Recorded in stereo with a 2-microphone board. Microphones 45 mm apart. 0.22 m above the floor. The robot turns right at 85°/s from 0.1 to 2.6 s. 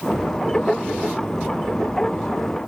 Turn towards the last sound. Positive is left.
No sound to turn to.